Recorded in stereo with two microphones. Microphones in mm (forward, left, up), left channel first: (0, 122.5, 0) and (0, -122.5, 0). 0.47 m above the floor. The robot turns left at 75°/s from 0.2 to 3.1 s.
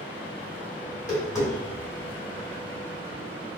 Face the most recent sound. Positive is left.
turn(degrees=-65)  # may be behind; listen again after turning